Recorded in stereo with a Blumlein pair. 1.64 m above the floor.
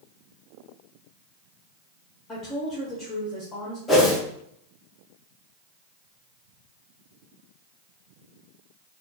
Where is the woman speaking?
20° left, 0.9 m.